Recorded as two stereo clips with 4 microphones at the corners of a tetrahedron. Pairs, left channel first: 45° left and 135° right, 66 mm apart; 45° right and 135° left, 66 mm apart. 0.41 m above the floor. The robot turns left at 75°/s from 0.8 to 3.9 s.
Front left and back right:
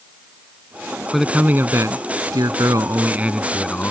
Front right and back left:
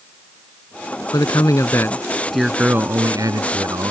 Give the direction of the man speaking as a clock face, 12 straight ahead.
2 o'clock.